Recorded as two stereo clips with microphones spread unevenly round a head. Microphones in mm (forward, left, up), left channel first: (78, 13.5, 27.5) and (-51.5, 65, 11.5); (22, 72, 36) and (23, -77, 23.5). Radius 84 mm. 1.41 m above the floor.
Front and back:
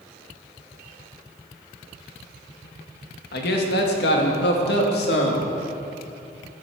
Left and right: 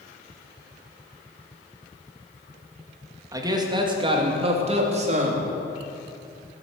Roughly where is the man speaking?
Ahead.